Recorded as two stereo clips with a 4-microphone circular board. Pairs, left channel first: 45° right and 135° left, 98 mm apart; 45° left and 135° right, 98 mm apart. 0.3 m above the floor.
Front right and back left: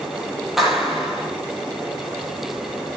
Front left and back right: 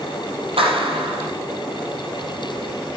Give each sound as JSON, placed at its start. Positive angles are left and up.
{"t": 0.6, "sound": "a clap", "azimuth_deg": -140, "distance_m": 6.5}